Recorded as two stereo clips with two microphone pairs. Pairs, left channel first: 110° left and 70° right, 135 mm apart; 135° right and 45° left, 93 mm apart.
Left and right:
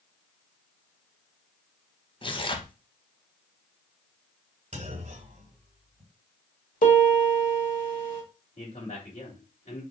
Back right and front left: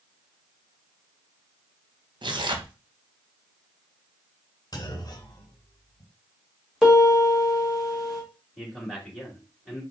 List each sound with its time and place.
2.2 s tearing paper: 65° left, 0.7 m
4.7 s a clunk: 90° right, 1.8 m
6.8 s a piano: 130° left, 1.7 m
8.6 s a man speaking: 135° left, 2.5 m